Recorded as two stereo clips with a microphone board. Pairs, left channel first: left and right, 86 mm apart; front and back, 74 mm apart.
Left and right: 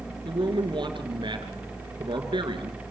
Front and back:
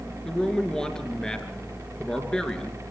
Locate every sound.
0.2 s a man speaking: 80° right, 3 m